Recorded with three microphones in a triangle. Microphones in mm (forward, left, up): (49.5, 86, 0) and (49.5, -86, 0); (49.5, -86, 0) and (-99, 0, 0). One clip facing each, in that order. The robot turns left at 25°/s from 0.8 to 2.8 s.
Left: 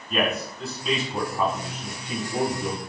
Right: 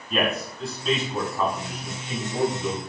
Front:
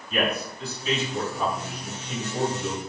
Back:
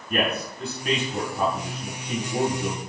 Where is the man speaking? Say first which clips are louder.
Even, back 1 dB; straight behind, 6.5 m; by 2.8 s 130° left, 6.5 m.